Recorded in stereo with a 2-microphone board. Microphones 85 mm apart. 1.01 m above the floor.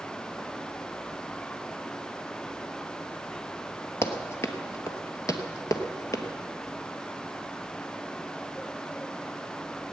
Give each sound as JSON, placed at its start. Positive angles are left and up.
{"t": 4.0, "sound": "running footsteps", "side_deg": 30, "distance_m": 1.3}